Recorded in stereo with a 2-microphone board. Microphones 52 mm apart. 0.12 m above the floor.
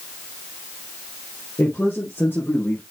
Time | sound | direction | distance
1.6 | a man speaking | 35° left (ahead or behind) | 3.5 m